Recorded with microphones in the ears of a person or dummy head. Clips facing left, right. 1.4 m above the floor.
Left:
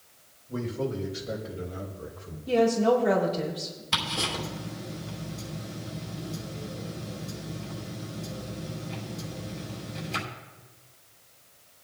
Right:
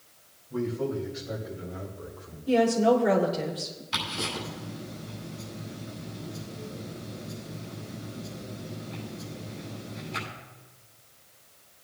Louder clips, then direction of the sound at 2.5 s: Even; 10° right (ahead or behind).